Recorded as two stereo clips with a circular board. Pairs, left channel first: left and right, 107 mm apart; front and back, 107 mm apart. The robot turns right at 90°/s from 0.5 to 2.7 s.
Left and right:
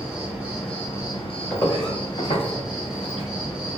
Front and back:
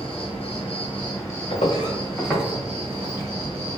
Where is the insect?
15° right, 1.6 m; by 3.8 s 175° right, 1.6 m.